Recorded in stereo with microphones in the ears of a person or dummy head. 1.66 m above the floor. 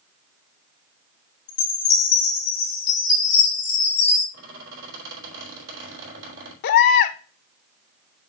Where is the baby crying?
55° left (ahead or behind), 0.8 m.